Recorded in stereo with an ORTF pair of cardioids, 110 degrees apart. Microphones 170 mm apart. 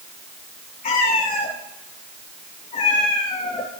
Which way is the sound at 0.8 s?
50° left.